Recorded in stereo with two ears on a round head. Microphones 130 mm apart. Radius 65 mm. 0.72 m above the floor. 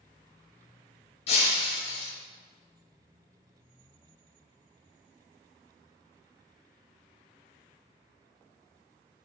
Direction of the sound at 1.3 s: 40° left (ahead or behind).